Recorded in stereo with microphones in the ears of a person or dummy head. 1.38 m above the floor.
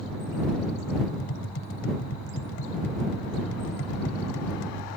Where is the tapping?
70° left (ahead or behind).